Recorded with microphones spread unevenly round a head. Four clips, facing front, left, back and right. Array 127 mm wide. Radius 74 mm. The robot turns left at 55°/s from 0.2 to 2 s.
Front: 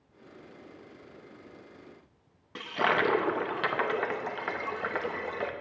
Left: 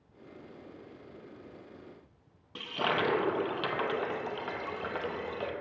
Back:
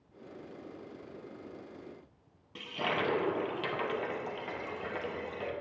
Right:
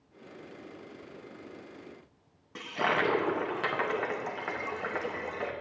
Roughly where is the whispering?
No whispering in this recording.